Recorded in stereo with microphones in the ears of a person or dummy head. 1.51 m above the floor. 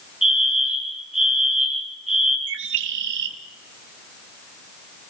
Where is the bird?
75° right (ahead or behind), 2.5 m.